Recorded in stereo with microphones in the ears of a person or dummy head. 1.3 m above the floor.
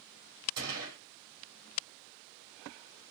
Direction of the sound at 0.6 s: 75° right (ahead or behind).